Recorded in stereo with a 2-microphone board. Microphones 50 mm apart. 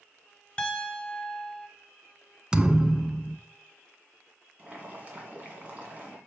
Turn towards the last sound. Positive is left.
turn(degrees=-30)  # may be behind; listen again after turning